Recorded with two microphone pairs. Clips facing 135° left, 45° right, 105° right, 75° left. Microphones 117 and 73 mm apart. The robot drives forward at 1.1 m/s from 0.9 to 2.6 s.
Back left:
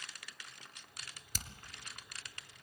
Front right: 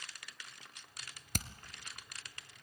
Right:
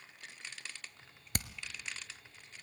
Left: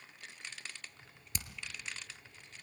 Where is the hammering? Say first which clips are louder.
Front right 8 dB, right 6 dB; 75° right, 1.2 m; by 1.5 s 80° right, 1.1 m.